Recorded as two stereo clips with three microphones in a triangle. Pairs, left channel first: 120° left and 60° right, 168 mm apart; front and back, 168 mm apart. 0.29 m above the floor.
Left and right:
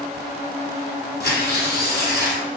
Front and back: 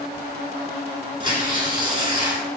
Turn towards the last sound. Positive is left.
turn(degrees=120)